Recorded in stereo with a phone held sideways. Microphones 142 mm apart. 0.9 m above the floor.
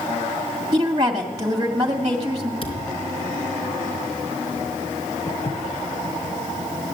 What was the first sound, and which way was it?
A woman speaking, 30° right (ahead or behind).